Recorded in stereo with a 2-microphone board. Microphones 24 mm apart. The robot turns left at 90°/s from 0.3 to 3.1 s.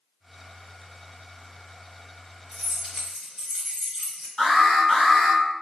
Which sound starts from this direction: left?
An alarm, at 4.4 s.